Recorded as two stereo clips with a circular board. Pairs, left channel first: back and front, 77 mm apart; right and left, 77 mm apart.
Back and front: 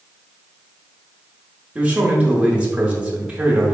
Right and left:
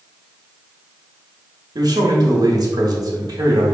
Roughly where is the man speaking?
Left.